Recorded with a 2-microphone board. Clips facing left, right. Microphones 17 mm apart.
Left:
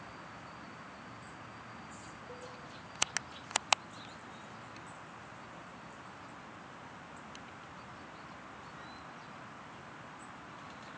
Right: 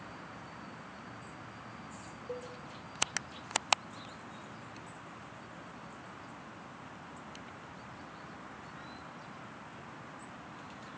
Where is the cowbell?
50° right (ahead or behind), 3 m.